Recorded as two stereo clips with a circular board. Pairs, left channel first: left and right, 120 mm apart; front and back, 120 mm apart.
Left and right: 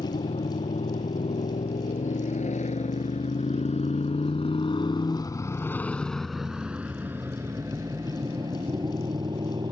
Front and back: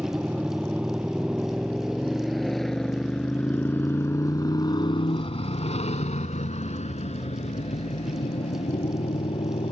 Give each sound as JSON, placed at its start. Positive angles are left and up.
{"t": 0.0, "sound": "a motorcycle", "azimuth_deg": 100}